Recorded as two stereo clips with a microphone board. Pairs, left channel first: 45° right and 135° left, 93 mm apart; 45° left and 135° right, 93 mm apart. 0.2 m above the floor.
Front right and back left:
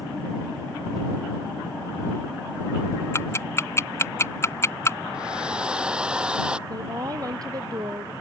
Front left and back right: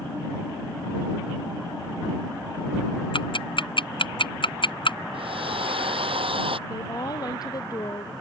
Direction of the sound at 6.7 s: 90° left.